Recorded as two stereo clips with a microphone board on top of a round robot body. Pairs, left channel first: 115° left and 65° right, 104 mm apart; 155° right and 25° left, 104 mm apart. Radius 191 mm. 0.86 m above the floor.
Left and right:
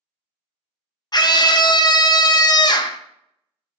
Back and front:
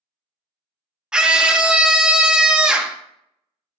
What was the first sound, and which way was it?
A scream, 100° left.